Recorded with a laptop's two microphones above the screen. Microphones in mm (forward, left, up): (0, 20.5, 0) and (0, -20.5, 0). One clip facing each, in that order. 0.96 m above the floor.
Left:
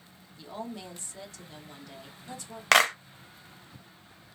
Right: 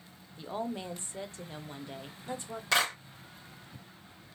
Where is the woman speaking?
25° right (ahead or behind), 0.5 m.